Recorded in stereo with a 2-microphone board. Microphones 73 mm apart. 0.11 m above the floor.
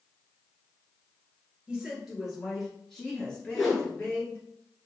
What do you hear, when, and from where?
1.7 s a woman speaking: 15° right (ahead or behind), 2 m; by 4.4 s 30° left (ahead or behind), 2 m
3.5 s a whoosh: centre (ahead or behind), 1.5 m